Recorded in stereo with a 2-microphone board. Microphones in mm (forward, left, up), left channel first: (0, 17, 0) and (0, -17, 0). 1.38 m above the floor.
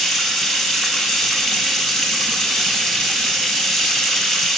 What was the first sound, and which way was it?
Running water, centre (ahead or behind).